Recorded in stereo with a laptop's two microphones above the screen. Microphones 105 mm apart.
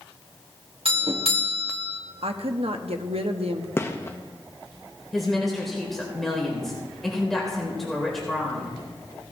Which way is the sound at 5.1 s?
Centre (ahead or behind).